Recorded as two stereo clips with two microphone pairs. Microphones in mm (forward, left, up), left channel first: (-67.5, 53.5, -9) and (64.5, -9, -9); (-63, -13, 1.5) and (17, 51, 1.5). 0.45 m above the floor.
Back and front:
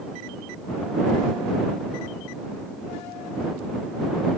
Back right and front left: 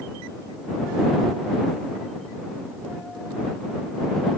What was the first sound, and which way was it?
Only background noise.